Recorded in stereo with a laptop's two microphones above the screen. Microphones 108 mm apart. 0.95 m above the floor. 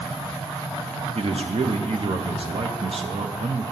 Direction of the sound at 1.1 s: 60° right (ahead or behind).